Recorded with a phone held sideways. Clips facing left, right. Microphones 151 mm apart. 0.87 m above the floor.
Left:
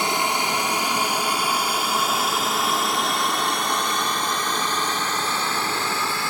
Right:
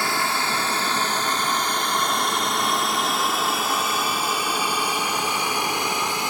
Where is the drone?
20° left (ahead or behind); by 6.3 s 15° right (ahead or behind).